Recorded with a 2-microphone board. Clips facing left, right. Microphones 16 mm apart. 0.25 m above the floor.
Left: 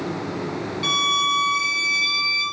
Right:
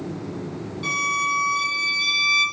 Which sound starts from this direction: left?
A violin, at 0.8 s.